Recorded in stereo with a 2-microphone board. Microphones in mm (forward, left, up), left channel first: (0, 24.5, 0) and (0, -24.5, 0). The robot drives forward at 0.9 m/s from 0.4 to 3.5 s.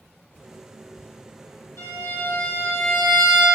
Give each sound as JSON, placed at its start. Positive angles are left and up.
{"t": 1.8, "sound": "a violin", "side_deg": 80, "distance_m": 2.5}